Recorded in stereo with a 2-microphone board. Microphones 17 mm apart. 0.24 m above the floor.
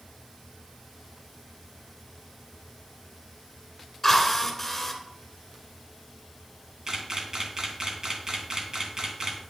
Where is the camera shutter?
50° right (ahead or behind), 2.5 m.